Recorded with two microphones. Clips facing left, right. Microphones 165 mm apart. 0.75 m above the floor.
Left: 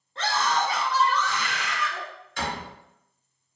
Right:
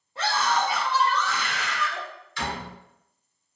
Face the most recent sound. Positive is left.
turn(degrees=55)  # may be behind; listen again after turning